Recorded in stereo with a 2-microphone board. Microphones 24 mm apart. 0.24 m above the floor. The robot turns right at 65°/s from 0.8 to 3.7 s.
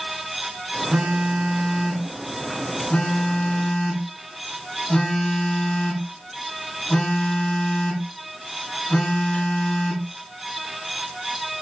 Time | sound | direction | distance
0.9 | a phone buzzing | 60° right | 1.5 m